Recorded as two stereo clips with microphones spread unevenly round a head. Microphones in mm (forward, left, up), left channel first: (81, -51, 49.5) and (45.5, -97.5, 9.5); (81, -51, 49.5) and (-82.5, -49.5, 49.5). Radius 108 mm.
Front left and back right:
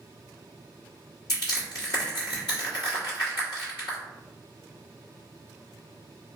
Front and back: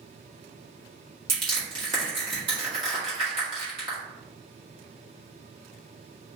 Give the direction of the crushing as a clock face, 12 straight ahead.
8 o'clock.